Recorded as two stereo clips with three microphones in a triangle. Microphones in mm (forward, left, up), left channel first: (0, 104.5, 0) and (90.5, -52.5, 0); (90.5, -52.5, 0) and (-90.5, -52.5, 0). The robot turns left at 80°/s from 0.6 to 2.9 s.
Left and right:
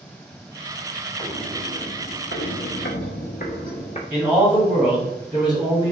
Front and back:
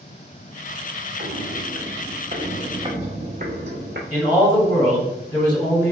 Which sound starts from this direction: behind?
Footsteps, at 1.2 s.